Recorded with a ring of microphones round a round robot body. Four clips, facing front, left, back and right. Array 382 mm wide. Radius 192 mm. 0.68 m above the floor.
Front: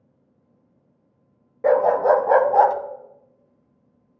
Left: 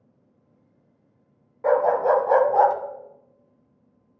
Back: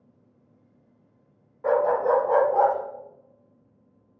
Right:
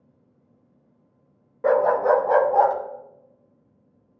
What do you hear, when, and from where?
1.6 s a dog barking: 35° right, 0.9 m; by 2.8 s 5° left, 1.3 m